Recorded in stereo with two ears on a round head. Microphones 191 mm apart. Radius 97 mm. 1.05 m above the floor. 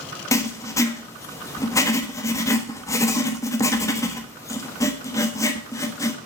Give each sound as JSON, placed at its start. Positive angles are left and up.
{"t": 0.3, "sound": "writing", "side_deg": 15, "distance_m": 1.2}